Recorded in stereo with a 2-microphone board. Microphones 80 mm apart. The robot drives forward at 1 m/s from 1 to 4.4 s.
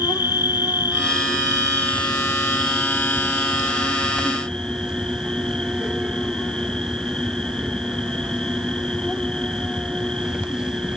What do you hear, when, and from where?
0.0 s an insect: 65° left (ahead or behind); by 11.0 s 10° left (ahead or behind)